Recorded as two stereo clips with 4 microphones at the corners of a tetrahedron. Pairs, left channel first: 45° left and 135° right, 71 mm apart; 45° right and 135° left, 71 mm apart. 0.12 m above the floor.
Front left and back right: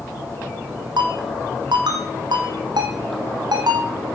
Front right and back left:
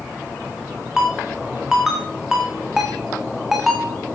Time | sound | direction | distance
1.0 | a ringtone | 140° right | 4 m